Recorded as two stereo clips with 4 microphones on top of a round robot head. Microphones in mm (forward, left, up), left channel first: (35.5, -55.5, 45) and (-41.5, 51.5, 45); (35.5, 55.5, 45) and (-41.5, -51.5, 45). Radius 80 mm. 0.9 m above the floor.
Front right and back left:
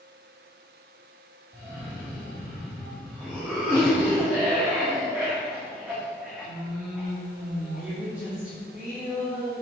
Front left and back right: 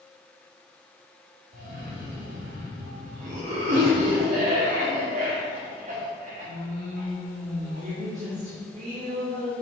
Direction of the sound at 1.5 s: 155° right.